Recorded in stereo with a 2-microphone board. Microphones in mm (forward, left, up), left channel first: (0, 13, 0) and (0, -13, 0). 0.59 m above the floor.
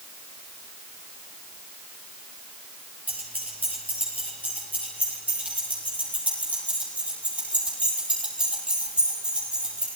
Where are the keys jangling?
80° right, 9 m; by 9.9 s 50° right (ahead or behind), 14.5 m.